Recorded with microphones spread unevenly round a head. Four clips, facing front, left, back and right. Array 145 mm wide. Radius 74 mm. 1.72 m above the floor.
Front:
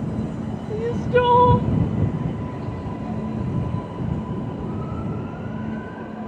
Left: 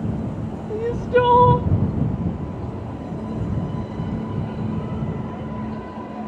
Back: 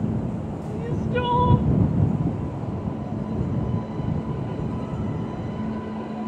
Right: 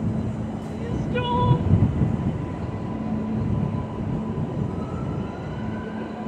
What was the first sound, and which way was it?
Crying, 45° left.